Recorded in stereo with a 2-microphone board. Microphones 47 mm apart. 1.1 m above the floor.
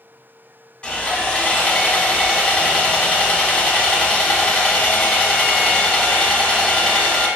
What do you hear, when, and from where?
0.8 s sawing: 25° left (ahead or behind), 1.0 m